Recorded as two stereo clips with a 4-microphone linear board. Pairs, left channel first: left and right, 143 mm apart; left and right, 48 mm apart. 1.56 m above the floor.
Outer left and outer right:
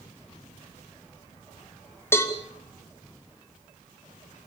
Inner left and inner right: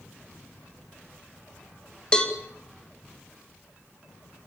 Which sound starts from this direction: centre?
A cowbell, at 2.1 s.